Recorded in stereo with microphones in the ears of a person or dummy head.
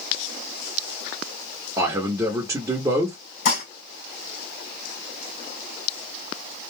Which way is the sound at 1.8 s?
15° right (ahead or behind).